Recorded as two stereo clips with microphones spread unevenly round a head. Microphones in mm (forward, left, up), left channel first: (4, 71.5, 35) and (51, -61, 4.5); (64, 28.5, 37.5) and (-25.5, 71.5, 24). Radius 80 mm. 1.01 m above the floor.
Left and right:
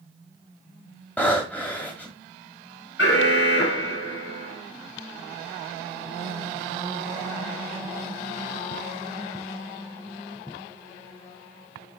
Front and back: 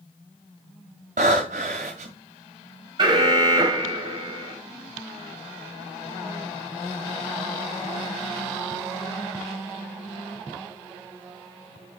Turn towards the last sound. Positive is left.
turn(degrees=120)